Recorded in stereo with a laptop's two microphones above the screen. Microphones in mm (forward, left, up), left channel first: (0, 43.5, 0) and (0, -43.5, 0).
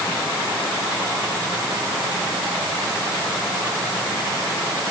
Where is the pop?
No pop in this recording.